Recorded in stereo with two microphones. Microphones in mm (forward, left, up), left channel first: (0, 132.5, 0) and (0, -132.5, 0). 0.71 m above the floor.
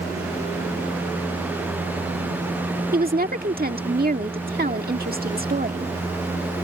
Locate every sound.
2.9 s a woman speaking: 35° right (ahead or behind)